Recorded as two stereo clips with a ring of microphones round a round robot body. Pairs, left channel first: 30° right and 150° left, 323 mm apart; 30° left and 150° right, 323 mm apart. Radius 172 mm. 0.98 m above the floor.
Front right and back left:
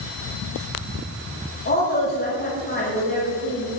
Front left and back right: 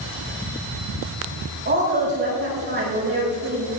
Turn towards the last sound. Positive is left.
turn(degrees=-90)